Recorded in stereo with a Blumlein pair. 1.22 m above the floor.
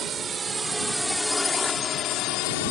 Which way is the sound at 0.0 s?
25° right.